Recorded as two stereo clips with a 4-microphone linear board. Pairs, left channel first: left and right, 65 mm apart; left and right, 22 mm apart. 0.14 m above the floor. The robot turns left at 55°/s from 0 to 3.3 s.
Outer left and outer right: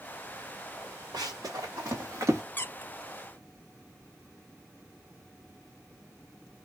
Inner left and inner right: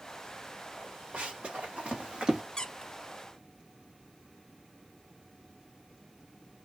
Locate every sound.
1.1 s running footsteps: 85° right, 1.8 m; by 2.4 s 40° right (ahead or behind), 1.2 m
2.6 s a squeak: 30° left (ahead or behind), 0.6 m; by 2.9 s 40° left (ahead or behind), 0.6 m